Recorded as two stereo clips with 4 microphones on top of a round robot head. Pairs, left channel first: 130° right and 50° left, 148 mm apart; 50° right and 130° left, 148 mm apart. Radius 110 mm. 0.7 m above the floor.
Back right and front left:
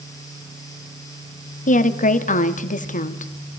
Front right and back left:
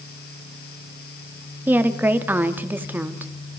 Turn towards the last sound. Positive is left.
turn(degrees=-155)